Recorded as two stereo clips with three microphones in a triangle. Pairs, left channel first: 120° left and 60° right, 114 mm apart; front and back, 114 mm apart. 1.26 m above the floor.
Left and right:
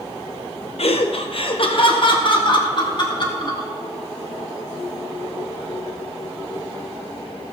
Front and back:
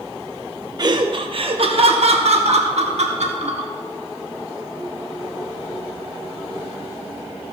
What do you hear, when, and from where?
0.8 s laughter: 135° left, 0.7 m; by 3.7 s 170° left, 2 m